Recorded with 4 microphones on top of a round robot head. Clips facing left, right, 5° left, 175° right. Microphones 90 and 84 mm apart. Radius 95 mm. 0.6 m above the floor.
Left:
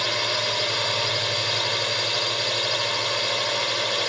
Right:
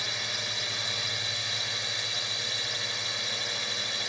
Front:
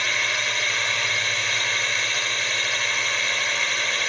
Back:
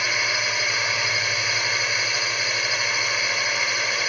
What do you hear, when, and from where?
0.0 s a drone: 105° left